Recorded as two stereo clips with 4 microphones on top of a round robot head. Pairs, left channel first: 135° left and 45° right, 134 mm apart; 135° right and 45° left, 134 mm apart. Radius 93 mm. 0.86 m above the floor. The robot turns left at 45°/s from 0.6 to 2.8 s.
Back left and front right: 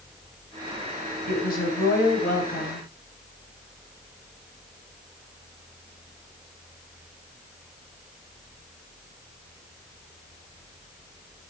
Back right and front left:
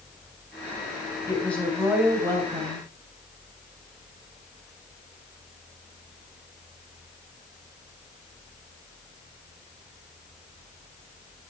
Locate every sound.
1.3 s a woman speaking: 155° left, 4.5 m; by 2.9 s 90° left, 4.5 m